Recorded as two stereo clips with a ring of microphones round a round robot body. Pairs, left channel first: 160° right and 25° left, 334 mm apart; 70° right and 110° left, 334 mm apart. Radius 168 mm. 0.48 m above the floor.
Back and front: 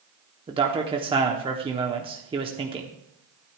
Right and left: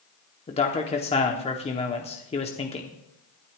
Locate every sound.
0.5 s a man speaking: 25° right, 1.1 m